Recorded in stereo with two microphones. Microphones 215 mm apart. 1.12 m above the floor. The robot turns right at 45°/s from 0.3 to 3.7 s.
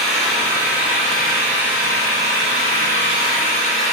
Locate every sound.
0.0 s an engine running: straight ahead, 1.4 m; by 3.9 s 150° left, 1.4 m